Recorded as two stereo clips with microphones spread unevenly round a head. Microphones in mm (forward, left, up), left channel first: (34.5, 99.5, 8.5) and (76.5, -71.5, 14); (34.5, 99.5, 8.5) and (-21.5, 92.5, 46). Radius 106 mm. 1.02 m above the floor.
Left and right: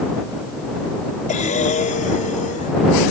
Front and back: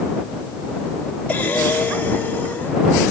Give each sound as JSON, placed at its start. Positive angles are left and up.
{"t": 1.3, "sound": "breathing", "azimuth_deg": 60}